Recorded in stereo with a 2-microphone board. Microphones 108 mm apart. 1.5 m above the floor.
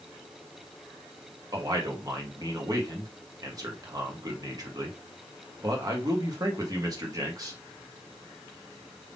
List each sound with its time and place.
1.5 s a man speaking: 35° right (ahead or behind), 1.2 m